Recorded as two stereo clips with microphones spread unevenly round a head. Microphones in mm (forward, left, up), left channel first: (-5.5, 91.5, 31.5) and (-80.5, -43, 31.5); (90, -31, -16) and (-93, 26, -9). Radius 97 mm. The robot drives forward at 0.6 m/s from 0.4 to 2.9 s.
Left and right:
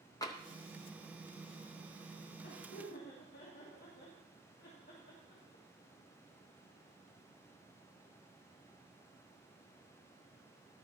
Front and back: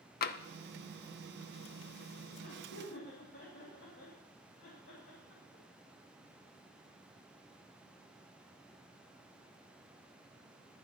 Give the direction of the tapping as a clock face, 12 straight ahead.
12 o'clock.